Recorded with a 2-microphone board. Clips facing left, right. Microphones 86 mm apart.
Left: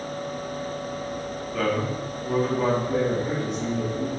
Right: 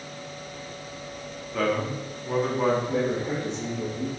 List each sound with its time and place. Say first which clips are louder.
1.5 s a man speaking: even; centre (ahead or behind), 3 m
2.9 s a man speaking: left 2 dB; 5° left (ahead or behind), 2.5 m